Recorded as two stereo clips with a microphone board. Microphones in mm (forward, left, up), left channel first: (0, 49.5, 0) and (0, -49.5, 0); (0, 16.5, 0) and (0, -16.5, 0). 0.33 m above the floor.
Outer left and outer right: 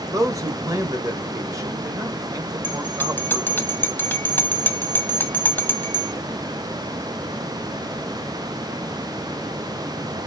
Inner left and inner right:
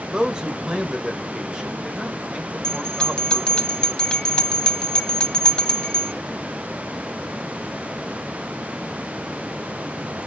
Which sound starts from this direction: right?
A man speaking, at 0.1 s.